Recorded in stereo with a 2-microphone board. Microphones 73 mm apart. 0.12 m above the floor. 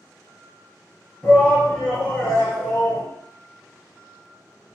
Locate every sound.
1.2 s a shout: 5° left (ahead or behind), 1.3 m